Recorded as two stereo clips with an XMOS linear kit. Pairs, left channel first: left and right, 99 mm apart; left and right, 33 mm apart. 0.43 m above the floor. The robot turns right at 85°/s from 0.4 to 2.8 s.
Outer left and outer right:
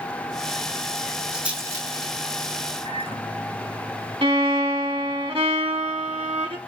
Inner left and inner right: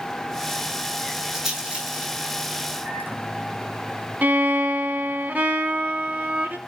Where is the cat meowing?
No cat meowing in this recording.